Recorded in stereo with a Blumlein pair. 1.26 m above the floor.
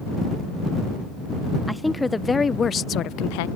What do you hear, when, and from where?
1.7 s a woman speaking: straight ahead; by 3.5 s 55° left